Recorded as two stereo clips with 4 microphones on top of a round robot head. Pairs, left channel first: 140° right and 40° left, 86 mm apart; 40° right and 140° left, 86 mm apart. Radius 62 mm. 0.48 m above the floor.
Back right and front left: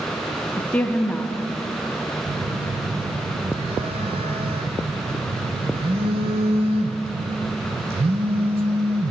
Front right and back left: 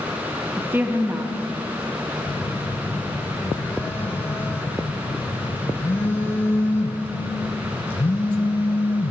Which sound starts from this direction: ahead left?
A phone buzzing, at 2.3 s.